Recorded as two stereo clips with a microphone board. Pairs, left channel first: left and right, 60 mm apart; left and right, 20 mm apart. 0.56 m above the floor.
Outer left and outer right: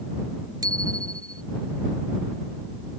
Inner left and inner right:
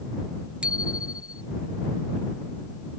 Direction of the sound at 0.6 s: 85° right.